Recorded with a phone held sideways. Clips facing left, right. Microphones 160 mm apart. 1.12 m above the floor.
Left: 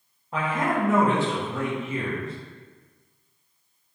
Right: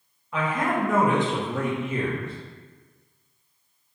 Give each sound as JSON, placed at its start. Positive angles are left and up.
{"t": 0.3, "sound": "a man speaking", "side_deg": 35, "distance_m": 0.8}